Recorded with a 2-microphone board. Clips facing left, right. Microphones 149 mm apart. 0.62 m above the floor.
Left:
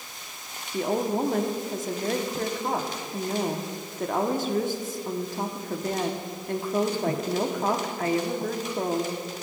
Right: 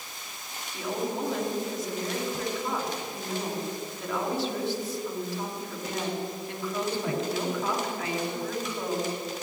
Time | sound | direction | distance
0.7 | a woman speaking | 50° left (ahead or behind) | 1.1 m